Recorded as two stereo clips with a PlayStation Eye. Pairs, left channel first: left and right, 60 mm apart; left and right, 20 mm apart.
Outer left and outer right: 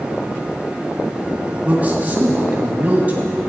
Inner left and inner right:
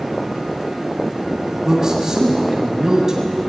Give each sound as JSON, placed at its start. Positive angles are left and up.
{"t": 1.6, "sound": "a man speaking", "side_deg": -30, "distance_m": 1.8}